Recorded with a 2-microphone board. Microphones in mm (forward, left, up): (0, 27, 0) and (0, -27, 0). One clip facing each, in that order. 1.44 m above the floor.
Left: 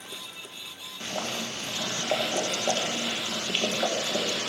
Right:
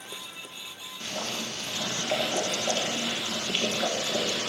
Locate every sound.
1.0 s boiling: 20° left (ahead or behind), 1.8 m